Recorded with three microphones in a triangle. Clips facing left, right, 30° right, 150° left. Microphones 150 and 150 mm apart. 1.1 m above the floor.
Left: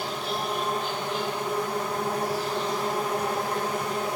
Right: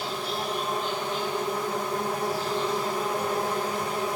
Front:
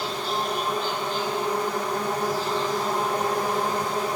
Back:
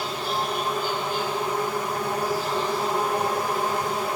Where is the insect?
70° left, 8.5 m.